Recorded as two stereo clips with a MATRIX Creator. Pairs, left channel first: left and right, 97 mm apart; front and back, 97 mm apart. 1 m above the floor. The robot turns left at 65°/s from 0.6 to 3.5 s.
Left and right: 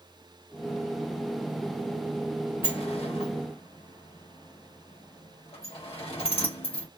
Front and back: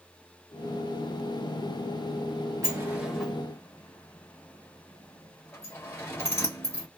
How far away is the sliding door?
About 1.3 m.